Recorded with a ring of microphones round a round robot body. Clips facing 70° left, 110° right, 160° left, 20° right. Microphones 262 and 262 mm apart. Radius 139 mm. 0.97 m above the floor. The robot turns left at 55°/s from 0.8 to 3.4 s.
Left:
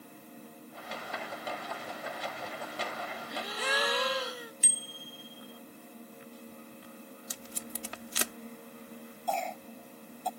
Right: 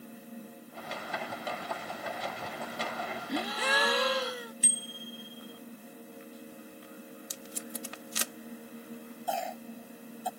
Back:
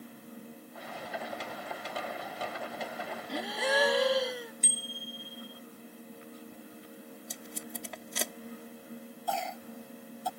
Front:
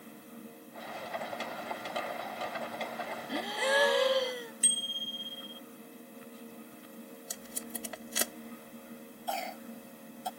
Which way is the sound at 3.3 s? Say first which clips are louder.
Right 4 dB, even; 110° right.